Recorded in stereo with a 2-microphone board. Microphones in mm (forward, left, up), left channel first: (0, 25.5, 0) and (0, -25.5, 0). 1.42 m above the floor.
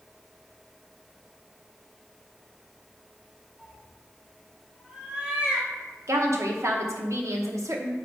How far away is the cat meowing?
About 3 m.